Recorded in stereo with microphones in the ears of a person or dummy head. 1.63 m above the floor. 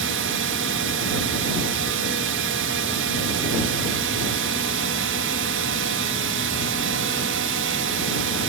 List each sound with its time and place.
0.0 s a drone: 55° right (ahead or behind)